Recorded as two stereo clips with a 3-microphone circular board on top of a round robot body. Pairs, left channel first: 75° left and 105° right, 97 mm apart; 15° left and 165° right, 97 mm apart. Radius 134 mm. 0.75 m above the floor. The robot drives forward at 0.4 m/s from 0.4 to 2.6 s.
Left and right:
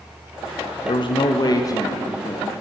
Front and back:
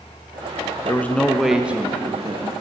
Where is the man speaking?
80° left, 0.6 m; by 2.5 s 140° left, 0.8 m.